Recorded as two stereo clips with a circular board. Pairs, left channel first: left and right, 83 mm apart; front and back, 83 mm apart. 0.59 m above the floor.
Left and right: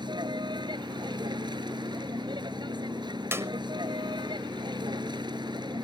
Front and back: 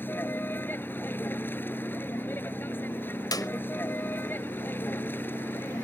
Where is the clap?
35° right.